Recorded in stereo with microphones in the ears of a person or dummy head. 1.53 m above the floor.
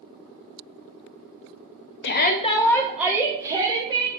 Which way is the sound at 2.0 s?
55° left (ahead or behind).